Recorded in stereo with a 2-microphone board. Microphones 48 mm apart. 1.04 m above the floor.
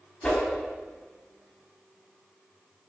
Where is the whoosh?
20° left (ahead or behind), 0.9 m.